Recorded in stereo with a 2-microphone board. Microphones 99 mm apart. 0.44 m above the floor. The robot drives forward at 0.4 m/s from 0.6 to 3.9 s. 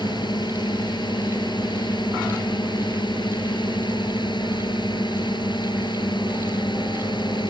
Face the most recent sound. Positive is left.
turn(degrees=50)  # may be behind; listen again after turning